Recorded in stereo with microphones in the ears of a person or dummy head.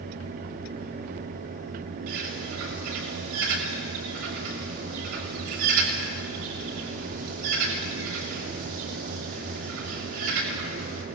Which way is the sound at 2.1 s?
75° right (ahead or behind).